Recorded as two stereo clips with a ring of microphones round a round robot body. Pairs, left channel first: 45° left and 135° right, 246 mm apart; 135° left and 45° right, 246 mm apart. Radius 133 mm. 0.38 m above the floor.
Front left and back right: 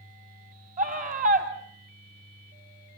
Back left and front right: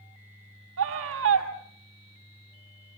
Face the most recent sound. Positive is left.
turn(degrees=-80)